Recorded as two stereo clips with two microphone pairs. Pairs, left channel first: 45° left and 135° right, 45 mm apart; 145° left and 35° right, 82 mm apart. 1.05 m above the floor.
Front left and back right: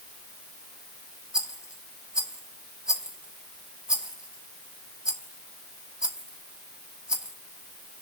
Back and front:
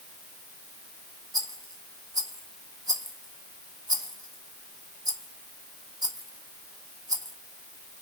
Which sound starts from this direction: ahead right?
A rattle, at 1.3 s.